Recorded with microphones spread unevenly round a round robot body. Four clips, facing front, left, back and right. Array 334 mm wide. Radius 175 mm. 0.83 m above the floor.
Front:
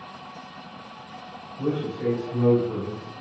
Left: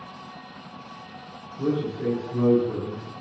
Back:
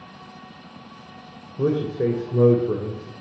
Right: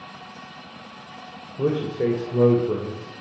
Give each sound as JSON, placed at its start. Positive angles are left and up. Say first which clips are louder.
{"t": 1.6, "sound": "a man speaking", "louder": "right 3 dB, back 5 dB", "azimuth_deg": -155, "distance_m": 2.5}